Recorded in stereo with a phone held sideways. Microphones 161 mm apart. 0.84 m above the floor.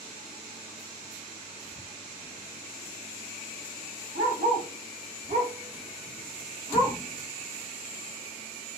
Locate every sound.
4.2 s a dog barking: 70° right (ahead or behind), 1.7 m; by 7.0 s 40° left (ahead or behind), 1.2 m